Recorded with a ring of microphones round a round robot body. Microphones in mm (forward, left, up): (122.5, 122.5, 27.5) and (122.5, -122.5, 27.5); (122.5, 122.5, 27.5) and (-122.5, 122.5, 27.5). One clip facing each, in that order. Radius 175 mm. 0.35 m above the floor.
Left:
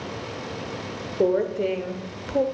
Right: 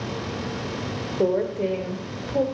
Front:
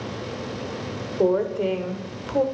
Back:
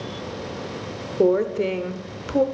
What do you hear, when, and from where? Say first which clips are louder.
1.2 s a woman speaking: left 1 dB, back 2 dB; 170° left, 1.0 m